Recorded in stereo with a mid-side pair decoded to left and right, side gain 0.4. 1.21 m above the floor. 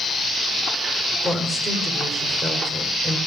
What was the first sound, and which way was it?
A woman speaking, 15° right.